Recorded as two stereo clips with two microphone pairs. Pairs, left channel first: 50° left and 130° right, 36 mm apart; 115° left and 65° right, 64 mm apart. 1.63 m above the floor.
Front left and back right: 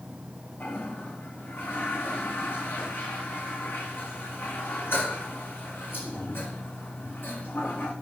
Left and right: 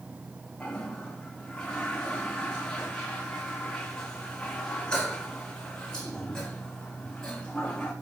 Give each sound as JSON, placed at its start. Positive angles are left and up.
{"t": 0.6, "sound": "a toilet flushing", "azimuth_deg": 40, "distance_m": 4.0}